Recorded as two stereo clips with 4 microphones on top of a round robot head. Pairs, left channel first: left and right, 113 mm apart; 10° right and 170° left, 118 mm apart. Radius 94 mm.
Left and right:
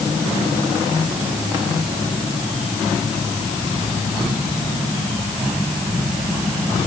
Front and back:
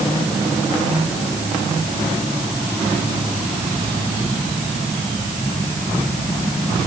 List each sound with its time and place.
Only background noise.